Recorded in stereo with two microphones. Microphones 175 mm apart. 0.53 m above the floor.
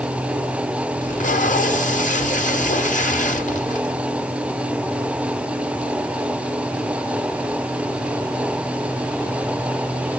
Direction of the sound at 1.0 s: 45° left (ahead or behind).